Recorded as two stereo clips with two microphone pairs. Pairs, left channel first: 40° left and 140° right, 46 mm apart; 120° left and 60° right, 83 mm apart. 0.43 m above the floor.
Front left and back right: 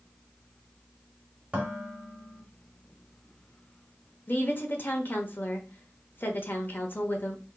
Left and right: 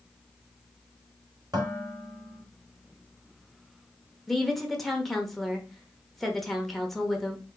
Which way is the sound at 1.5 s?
85° right.